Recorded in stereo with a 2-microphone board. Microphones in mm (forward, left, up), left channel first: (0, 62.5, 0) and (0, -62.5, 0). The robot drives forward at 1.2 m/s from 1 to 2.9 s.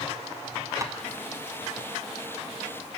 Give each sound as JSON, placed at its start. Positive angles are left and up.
{"t": 0.8, "sound": "tapping", "side_deg": -25, "distance_m": 1.0}